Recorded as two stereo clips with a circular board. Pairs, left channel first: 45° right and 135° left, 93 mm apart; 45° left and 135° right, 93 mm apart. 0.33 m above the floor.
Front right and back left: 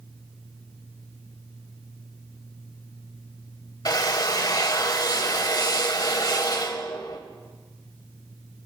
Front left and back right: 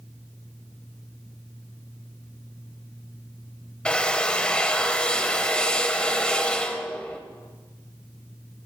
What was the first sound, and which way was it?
A drill, 30° right.